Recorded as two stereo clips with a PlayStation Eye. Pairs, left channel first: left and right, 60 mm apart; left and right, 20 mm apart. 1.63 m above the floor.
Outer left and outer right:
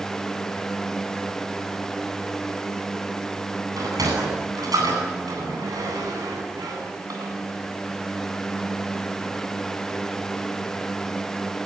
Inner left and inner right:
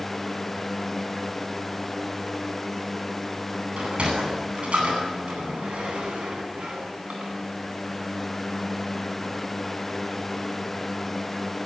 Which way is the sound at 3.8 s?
80° right.